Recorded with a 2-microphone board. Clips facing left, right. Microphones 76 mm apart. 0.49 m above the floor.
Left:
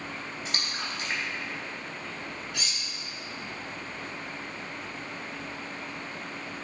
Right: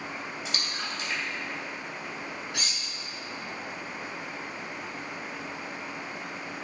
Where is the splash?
45° left (ahead or behind), 2 m.